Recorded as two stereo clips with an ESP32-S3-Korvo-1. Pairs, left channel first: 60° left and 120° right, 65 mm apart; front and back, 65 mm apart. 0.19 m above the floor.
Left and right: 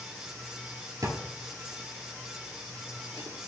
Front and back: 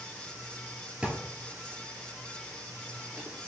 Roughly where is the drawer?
Right.